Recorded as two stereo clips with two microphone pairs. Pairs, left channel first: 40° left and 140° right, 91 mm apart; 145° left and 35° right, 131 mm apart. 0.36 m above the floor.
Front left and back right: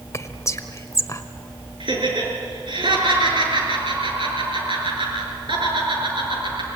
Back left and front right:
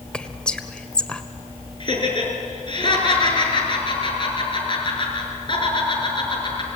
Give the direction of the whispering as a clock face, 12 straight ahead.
10 o'clock.